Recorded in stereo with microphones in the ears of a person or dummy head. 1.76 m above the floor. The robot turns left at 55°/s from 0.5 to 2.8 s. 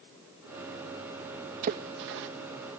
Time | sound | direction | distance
1.6 | a splash | 45° right (ahead or behind) | ?